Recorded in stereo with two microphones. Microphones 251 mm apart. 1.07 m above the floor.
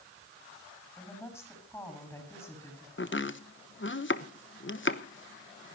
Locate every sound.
1.0 s a woman speaking: 10° left (ahead or behind), 7 m
3.0 s chopping: 50° left (ahead or behind), 1.1 m